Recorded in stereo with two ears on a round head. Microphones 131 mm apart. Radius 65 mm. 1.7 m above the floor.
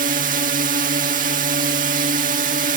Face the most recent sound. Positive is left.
turn(degrees=-60)  # may be behind; listen again after turning